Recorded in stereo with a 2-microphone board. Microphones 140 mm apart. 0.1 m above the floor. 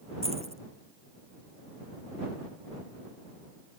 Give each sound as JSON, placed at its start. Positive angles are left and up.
{"t": 0.2, "sound": "keys jangling", "side_deg": -45}